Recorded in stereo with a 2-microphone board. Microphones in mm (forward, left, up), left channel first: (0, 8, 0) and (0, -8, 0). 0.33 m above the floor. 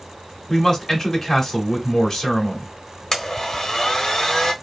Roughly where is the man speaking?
Left.